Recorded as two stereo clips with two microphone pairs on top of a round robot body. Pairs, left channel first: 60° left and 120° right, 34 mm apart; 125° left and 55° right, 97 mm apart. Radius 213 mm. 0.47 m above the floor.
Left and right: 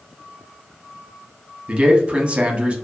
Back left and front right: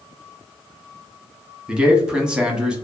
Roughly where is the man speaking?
Behind right.